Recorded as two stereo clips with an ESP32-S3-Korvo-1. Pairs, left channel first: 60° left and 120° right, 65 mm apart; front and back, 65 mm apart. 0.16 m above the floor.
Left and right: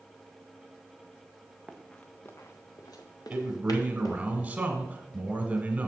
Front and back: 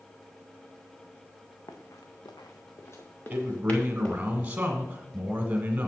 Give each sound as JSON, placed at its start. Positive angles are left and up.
{"t": 1.7, "sound": "running footsteps", "azimuth_deg": -30, "distance_m": 1.3}
{"t": 3.3, "sound": "a man speaking", "azimuth_deg": -155, "distance_m": 1.1}